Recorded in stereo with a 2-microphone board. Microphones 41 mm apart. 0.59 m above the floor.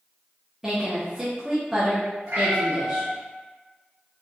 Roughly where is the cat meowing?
Right.